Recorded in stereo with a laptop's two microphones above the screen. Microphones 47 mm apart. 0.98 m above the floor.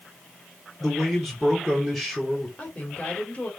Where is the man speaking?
Centre (ahead or behind), 3 m.